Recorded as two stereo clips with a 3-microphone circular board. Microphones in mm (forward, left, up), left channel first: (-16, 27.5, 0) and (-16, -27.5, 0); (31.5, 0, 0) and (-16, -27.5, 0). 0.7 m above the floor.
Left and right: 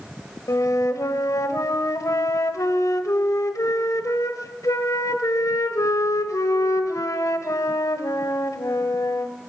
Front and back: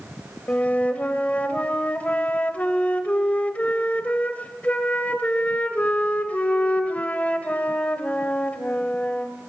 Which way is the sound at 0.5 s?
90° left.